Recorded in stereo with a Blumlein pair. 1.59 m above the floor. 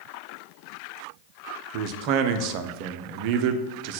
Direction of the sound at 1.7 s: 45° right.